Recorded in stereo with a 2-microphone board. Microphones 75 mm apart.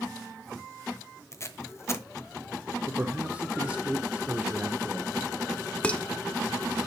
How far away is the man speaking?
About 1.0 m.